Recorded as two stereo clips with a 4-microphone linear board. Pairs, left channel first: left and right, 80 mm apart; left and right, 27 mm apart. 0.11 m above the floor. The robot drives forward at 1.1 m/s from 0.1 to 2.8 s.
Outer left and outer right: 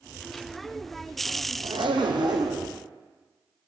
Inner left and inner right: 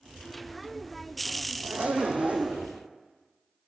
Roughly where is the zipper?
Right.